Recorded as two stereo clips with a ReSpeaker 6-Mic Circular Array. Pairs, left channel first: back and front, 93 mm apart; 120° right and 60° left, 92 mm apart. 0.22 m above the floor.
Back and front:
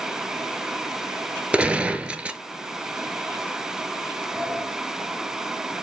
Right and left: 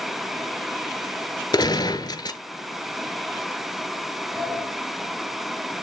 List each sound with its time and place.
1.5 s a gunshot: 80° right, 0.5 m
4.3 s a sliding door: 60° left, 1.3 m